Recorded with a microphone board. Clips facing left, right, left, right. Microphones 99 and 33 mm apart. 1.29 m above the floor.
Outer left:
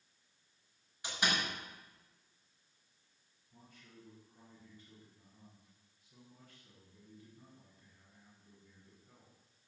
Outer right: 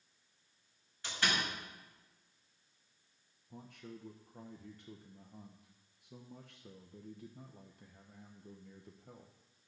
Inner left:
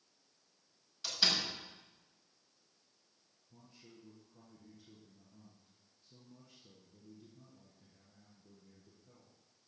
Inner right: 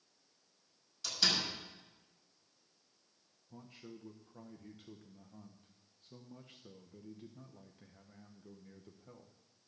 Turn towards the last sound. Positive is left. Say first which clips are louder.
# outer right 10 dB, inner right 7 dB
turn(degrees=-70)  # may be behind; listen again after turning